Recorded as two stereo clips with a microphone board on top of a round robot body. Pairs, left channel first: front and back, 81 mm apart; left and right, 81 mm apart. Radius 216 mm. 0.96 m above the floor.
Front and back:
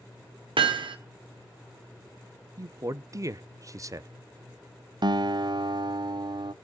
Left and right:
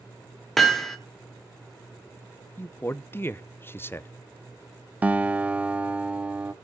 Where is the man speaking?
145° left, 1.0 m.